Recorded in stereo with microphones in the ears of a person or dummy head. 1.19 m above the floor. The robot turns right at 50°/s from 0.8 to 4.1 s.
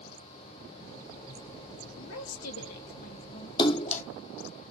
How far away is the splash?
About 0.7 m.